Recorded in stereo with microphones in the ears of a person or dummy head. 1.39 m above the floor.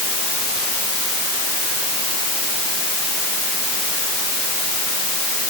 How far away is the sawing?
I don't hear sawing.